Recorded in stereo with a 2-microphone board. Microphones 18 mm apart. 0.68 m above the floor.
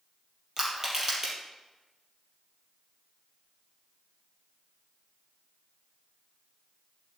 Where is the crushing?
30° right (ahead or behind), 4 m.